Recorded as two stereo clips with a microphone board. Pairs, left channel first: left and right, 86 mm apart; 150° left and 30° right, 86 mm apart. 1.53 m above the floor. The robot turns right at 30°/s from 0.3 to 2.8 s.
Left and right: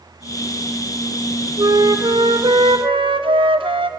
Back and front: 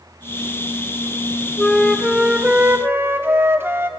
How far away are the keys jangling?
I don't hear keys jangling.